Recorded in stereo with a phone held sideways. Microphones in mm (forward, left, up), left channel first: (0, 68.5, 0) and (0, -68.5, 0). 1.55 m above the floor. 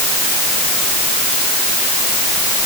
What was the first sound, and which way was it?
Only background noise.